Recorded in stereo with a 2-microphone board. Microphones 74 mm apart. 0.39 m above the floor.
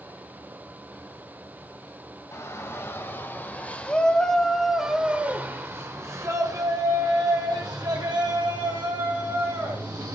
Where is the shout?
40° left (ahead or behind), 2.5 m; by 10.2 s 70° right (ahead or behind), 4.5 m.